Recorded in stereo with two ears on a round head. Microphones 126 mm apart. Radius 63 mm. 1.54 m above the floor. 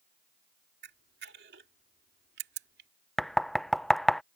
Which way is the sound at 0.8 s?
85° right.